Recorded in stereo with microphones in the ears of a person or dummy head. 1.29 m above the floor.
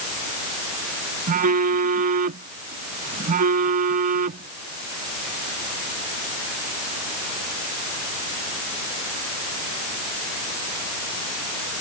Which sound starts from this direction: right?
A phone buzzing, at 1.3 s.